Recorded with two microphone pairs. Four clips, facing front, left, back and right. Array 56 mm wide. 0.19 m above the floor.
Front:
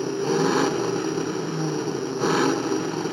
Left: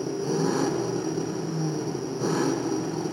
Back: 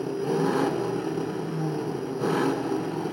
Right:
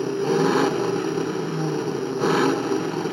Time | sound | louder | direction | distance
0.0 | an engine running | right 5 dB, front 3 dB | 45° right | 2.0 m